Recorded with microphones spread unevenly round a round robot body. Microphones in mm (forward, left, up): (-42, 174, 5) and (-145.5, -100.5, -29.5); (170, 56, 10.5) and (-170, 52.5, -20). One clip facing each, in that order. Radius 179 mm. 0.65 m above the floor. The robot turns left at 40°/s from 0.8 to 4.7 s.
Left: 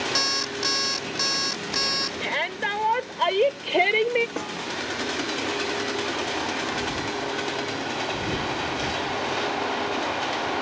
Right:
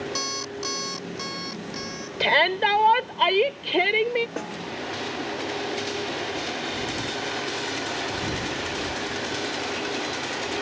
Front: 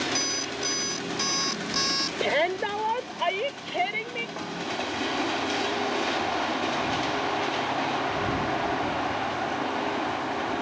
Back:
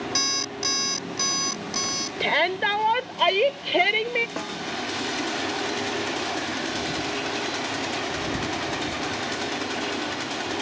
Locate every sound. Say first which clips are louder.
0.1 s an alarm clock: left 1 dB, even; 120° left; by 2.1 s 65° left
2.2 s a shout: right 12 dB, front 1 dB; 110° right; by 4.3 s 170° left
4.4 s a snare drum: left 1 dB, back 2 dB; 155° left; by 4.6 s 145° left